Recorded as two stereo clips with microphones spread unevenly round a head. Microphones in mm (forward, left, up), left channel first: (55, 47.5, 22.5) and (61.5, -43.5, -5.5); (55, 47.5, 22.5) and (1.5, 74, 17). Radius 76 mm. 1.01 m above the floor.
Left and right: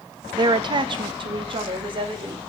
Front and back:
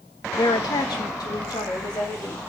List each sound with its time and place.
0.3 s a woman speaking: 55° right, 0.6 m; by 2.4 s 60° right, 1.7 m